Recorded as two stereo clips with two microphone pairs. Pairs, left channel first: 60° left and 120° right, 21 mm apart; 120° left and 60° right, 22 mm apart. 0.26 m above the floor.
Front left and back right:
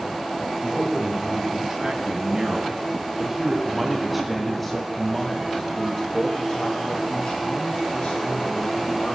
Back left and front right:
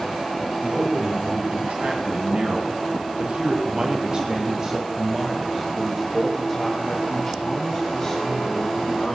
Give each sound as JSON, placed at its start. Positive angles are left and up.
{"t": 0.6, "sound": "a man speaking", "azimuth_deg": -80, "distance_m": 3.0}